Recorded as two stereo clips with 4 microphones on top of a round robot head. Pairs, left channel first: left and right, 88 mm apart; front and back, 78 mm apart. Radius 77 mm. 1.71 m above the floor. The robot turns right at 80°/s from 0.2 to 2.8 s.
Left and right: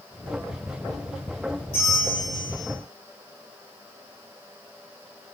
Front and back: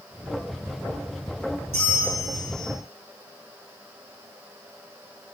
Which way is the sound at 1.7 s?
100° left.